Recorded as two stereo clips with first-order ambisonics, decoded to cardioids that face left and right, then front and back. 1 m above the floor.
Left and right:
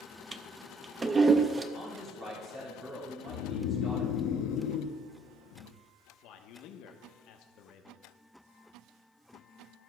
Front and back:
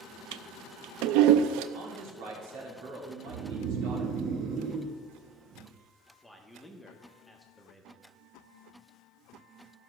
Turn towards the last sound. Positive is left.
turn(degrees=85)